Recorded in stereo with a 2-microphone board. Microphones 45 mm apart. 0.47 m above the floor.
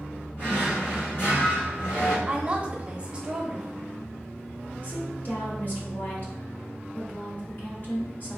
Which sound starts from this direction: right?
A woman speaking, at 2.3 s.